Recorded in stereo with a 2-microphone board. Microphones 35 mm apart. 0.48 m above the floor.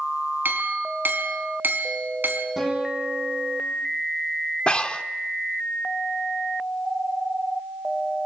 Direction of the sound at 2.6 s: 10° right (ahead or behind).